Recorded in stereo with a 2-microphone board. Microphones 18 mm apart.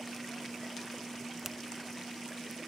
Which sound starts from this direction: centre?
A finger snap, at 1.4 s.